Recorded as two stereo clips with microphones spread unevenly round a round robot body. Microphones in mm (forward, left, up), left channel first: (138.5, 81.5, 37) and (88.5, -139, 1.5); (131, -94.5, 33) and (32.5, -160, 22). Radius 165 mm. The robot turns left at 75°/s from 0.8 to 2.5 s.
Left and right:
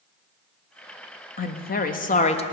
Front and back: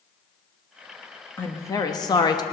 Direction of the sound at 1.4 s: 100° left.